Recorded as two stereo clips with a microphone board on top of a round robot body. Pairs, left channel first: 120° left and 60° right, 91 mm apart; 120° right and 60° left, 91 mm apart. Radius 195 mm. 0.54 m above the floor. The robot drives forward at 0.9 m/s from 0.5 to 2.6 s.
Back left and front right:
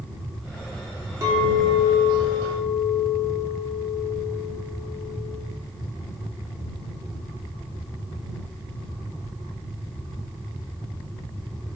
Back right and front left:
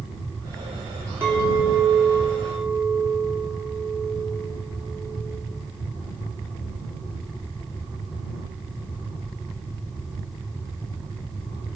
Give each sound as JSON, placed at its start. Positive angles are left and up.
{"t": 1.2, "sound": "a clink", "azimuth_deg": -5, "distance_m": 2.0}